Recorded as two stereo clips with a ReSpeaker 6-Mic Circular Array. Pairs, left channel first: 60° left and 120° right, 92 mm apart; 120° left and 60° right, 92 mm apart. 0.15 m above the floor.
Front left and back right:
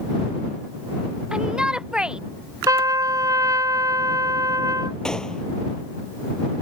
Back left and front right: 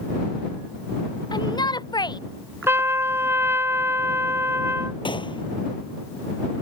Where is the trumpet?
105° right.